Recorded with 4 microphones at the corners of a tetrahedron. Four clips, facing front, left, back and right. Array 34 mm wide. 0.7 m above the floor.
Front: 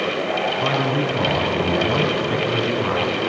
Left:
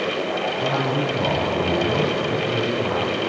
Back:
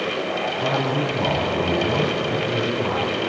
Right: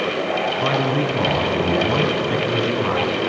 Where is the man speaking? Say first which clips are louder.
Right 2 dB, front 2 dB; 50° right, 5 m.